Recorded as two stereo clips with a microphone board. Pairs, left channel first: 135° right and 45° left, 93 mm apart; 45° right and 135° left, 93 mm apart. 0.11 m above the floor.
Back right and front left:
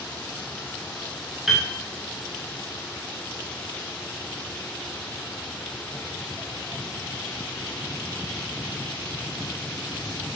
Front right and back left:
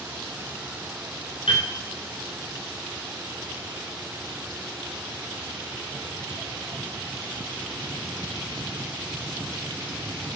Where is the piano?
40° right, 3.5 m.